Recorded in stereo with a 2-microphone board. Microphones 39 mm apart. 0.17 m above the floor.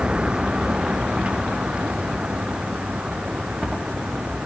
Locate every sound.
0.0 s a vehicle: 25° right (ahead or behind); by 4.5 s 30° right (ahead or behind)